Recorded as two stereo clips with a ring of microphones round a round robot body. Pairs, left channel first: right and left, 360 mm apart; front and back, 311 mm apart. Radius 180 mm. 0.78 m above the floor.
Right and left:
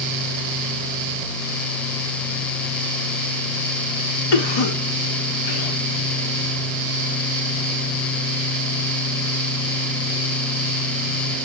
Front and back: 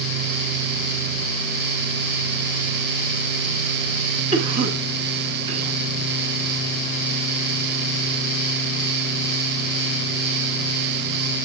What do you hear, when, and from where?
4.3 s a cough: 105° right, 1.3 m